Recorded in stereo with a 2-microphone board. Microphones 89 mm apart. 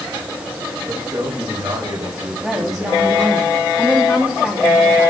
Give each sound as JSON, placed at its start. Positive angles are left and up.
{"t": 0.9, "sound": "a man speaking", "side_deg": -55, "distance_m": 7.5}
{"t": 2.4, "sound": "a woman speaking", "side_deg": -5, "distance_m": 2.5}